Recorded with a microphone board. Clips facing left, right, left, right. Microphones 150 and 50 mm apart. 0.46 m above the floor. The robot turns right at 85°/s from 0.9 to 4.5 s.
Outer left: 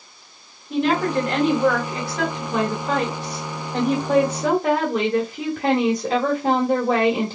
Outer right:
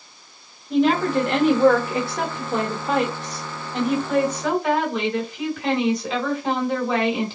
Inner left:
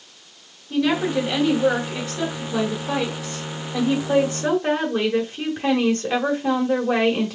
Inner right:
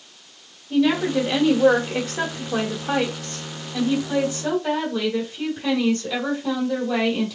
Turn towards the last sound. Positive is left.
turn(degrees=125)